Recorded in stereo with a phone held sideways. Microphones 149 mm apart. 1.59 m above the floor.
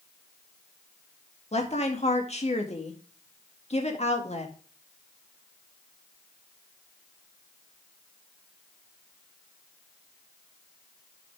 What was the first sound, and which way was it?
A woman speaking, 45° left (ahead or behind).